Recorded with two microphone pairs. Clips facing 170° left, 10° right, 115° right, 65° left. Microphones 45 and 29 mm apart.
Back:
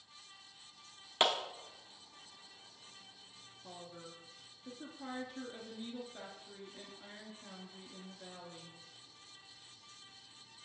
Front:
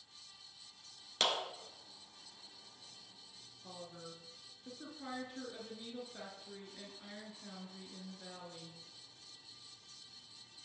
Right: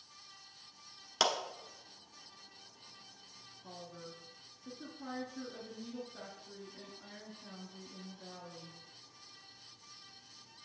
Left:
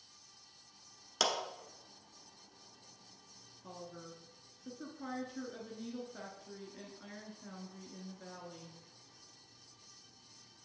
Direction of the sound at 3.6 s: 65° left.